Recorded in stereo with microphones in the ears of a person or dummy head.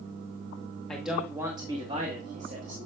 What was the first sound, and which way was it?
A man speaking, 5° left (ahead or behind).